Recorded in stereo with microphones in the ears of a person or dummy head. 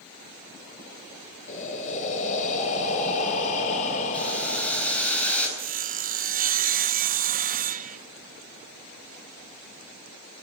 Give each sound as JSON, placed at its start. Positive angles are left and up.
{"t": 1.5, "sound": "breathing", "side_deg": 45, "distance_m": 4.0}
{"t": 4.1, "sound": "boiling", "side_deg": 10, "distance_m": 8.5}
{"t": 5.6, "sound": "sawing", "side_deg": -45, "distance_m": 0.9}